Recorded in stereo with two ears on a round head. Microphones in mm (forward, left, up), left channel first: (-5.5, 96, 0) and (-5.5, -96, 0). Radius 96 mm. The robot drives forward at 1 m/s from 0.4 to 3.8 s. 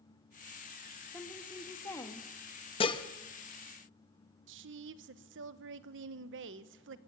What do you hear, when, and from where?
1.1 s a woman speaking: 10° left (ahead or behind), 2.5 m; by 2.3 s 15° left (ahead or behind), 1.5 m
2.8 s dishes clattering: 25° left (ahead or behind), 0.9 m; by 3.0 s 20° left (ahead or behind), 1.1 m
4.5 s a woman speaking: 55° right (ahead or behind), 1.0 m